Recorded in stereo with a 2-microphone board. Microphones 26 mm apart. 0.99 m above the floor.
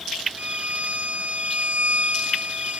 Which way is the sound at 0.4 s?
65° right (ahead or behind).